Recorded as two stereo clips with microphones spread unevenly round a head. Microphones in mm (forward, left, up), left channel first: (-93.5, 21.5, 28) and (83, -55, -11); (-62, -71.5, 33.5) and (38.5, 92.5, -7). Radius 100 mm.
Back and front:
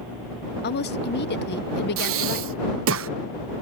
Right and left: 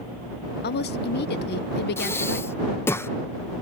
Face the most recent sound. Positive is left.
turn(degrees=-45)